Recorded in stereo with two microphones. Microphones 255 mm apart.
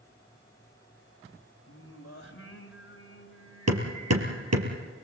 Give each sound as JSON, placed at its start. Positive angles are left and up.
{"t": 1.7, "sound": "singing", "side_deg": 55, "distance_m": 3.0}
{"t": 3.7, "sound": "hammering", "side_deg": -80, "distance_m": 3.5}